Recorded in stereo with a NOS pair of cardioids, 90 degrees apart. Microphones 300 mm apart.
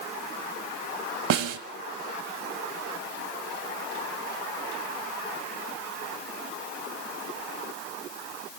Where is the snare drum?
60° right, 2.5 m.